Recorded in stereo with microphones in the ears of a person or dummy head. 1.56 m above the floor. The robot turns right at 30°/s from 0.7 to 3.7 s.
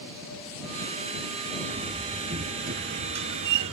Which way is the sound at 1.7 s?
165° right.